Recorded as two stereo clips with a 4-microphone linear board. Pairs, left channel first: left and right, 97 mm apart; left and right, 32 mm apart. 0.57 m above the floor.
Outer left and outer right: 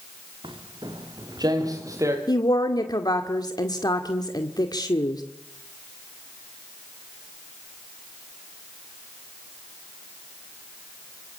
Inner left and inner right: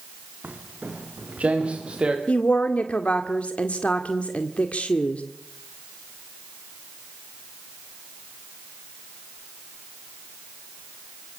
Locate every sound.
0.4 s footsteps: 60° right (ahead or behind), 4.5 m; by 2.2 s 30° right (ahead or behind), 5.5 m
2.3 s a woman speaking: 40° left (ahead or behind), 1.9 m